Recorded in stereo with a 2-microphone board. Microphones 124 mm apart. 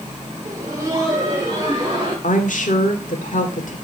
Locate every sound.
0.5 s laughter: 25° right (ahead or behind), 2 m; by 2.1 s 35° right (ahead or behind), 3 m
2.2 s a woman speaking: 75° left (ahead or behind), 1.7 m